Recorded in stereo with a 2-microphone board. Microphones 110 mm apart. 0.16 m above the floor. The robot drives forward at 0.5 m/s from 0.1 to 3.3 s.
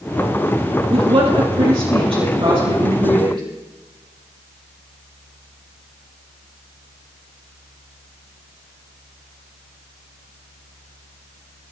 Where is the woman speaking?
60° right (ahead or behind), 4.5 m; by 3.4 s 50° right (ahead or behind), 5 m.